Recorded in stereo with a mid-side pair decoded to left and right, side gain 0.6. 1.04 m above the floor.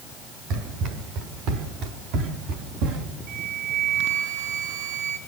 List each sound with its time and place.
0.5 s running footsteps: 70° right, 7 m; by 3.0 s 75° right, 5 m
3.3 s a flute: 65° right, 6 m